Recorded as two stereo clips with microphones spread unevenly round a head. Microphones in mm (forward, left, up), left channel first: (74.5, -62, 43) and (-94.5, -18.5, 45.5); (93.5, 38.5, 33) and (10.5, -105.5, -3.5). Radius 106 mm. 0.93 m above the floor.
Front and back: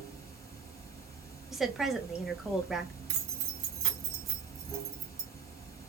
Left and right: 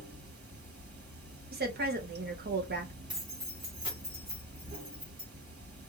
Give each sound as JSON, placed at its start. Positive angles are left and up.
{"t": 0.0, "sound": "running water", "azimuth_deg": -90, "distance_m": 1.6}
{"t": 1.5, "sound": "a woman speaking", "azimuth_deg": -105, "distance_m": 1.0}
{"t": 3.1, "sound": "keys jangling", "azimuth_deg": 170, "distance_m": 1.2}